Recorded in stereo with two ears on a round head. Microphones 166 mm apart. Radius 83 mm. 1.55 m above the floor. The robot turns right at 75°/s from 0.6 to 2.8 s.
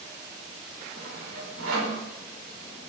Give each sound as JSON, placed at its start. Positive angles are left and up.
{"t": 0.9, "sound": "sawing", "side_deg": -35, "distance_m": 5.0}